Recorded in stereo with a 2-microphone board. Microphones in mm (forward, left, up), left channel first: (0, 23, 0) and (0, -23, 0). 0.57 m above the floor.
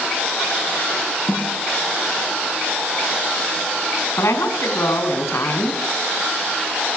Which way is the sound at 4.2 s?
80° left.